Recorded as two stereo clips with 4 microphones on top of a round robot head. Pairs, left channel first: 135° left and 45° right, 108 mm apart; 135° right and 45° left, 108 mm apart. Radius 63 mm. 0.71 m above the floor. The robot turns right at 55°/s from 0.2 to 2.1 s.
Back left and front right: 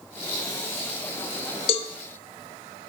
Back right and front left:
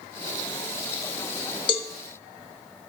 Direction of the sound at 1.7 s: 175° left.